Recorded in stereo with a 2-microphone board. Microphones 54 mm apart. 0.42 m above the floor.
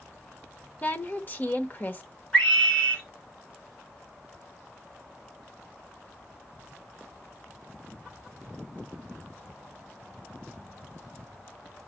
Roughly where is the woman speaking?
Left.